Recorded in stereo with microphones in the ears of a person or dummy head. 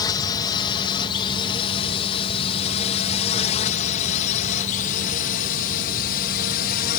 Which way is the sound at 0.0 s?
25° left (ahead or behind).